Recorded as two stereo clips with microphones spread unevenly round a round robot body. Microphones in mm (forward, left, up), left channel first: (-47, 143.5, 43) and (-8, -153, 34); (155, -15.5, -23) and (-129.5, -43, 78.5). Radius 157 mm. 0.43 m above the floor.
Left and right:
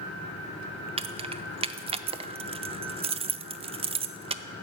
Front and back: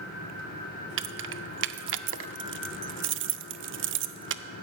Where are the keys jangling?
125° right, 0.5 m.